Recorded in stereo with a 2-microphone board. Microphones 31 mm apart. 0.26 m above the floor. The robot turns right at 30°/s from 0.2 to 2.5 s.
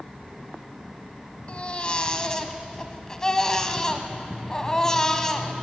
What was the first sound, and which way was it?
A baby crying, 125° left.